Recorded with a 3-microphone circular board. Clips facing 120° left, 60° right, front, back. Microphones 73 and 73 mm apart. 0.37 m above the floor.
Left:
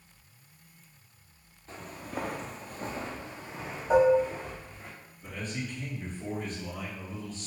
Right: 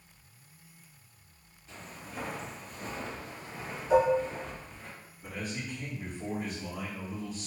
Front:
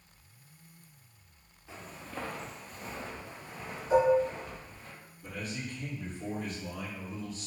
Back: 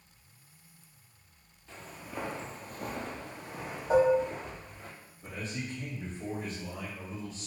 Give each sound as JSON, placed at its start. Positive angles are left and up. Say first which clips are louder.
{"t": 1.7, "sound": "footsteps", "louder": "left 5 dB, even", "azimuth_deg": 80, "distance_m": 0.7}
{"t": 3.9, "sound": "dishes clattering", "louder": "left 3 dB, even", "azimuth_deg": 160, "distance_m": 1.3}
{"t": 5.2, "sound": "a man speaking", "louder": "left 1 dB, back 1 dB", "azimuth_deg": -135, "distance_m": 1.8}